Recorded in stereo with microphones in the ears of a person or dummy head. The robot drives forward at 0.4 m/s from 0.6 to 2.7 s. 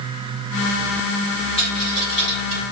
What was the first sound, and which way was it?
A dropped coin, 35° left (ahead or behind).